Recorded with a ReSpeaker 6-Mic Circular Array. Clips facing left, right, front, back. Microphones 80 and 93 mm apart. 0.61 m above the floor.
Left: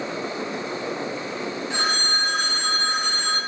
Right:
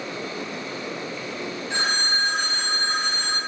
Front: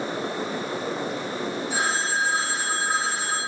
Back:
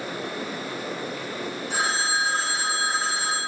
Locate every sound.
1.7 s a phone ringing: 160° left, 1.9 m